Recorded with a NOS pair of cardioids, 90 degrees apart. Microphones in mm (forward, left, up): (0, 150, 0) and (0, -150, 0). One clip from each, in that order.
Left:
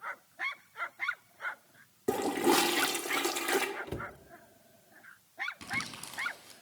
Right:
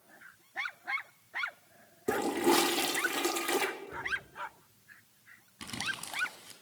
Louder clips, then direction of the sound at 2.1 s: Even; 5° left.